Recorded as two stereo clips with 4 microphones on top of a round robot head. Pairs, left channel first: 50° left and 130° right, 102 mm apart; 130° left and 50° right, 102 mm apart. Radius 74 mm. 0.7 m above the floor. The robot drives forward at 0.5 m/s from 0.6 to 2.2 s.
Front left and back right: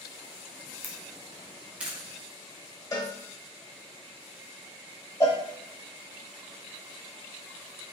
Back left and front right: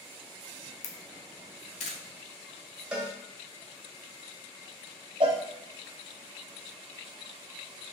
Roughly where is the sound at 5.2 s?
Ahead.